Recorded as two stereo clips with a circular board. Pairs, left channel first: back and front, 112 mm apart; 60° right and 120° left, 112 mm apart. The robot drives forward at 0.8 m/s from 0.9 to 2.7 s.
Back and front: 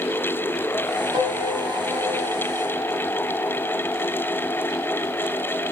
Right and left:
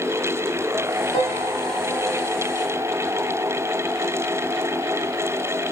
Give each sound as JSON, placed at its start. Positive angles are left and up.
{"t": 1.1, "sound": "a piano", "azimuth_deg": -50, "distance_m": 6.0}